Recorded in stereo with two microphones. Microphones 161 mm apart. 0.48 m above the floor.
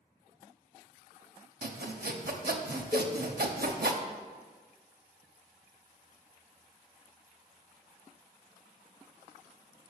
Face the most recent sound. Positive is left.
turn(degrees=30)  # may be behind; listen again after turning